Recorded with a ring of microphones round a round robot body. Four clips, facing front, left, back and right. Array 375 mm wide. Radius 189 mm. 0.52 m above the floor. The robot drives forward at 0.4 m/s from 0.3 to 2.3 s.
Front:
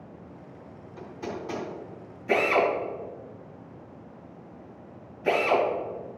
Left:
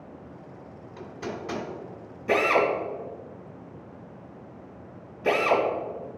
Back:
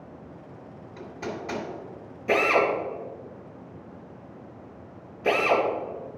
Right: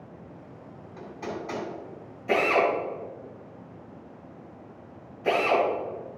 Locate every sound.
1.0 s hammering: 145° left, 2.5 m
2.3 s a drill: 140° left, 3 m